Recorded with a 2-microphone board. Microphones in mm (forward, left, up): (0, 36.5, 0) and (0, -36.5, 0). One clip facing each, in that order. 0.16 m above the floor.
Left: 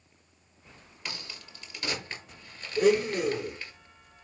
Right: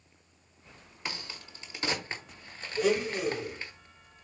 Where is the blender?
55° left (ahead or behind), 1.6 m.